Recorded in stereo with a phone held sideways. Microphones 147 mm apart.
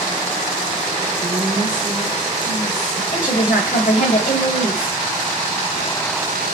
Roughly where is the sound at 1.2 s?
Right.